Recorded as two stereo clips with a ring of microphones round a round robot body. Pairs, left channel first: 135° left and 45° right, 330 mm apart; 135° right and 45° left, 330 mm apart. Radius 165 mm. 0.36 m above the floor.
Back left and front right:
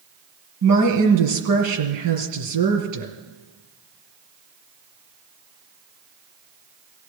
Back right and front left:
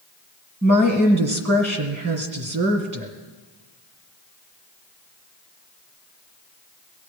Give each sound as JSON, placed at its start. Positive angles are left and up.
{"t": 0.6, "sound": "a woman speaking", "azimuth_deg": -15, "distance_m": 4.0}